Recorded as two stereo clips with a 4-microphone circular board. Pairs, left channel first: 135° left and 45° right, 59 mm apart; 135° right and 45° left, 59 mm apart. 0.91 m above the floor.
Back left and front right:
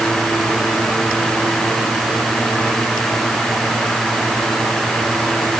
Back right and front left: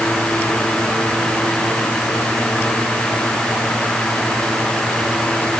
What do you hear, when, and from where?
Only background noise.